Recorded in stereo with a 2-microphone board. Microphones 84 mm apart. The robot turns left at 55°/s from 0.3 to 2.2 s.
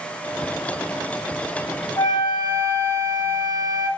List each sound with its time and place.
2.0 s a flute: 45° left (ahead or behind), 1.7 m; by 3.9 s 60° left (ahead or behind), 1.7 m